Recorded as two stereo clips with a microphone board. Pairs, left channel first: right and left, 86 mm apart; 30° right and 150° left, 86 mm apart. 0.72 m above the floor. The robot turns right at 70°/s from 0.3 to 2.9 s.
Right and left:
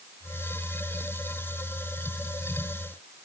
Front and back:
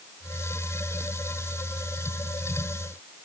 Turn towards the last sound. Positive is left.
No sound to turn to.